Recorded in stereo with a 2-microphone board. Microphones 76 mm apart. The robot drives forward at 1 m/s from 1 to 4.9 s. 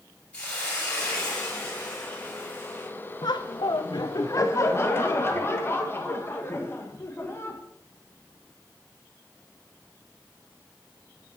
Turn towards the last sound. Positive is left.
turn(degrees=35)  # may be behind; listen again after turning